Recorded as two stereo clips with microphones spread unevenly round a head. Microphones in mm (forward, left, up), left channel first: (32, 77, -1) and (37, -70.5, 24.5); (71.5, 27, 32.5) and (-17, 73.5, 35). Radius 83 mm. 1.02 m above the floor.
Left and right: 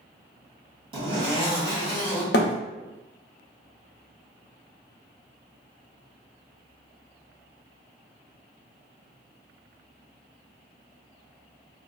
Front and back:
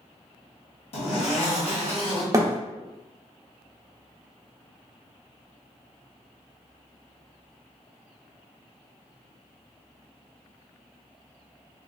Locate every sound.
0.9 s a zipper: 30° right, 1.2 m
2.3 s a thud: 100° left, 0.5 m